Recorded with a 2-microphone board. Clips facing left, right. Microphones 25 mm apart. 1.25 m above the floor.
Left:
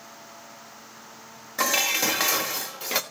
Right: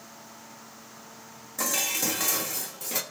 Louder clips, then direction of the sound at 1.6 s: Left 5 dB; 40° left (ahead or behind).